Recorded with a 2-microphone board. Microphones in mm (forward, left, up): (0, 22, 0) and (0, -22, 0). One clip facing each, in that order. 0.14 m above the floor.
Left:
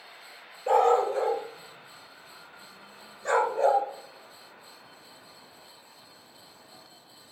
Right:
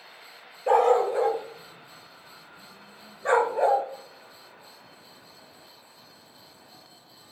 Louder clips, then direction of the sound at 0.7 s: Right 2 dB; 10° right (ahead or behind).